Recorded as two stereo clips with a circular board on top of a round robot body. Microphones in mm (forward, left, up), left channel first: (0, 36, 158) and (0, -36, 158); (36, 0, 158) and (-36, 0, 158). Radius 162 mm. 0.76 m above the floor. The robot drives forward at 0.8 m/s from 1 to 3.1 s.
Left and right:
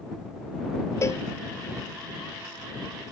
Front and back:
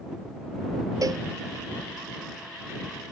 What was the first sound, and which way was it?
A cowbell, 140° left.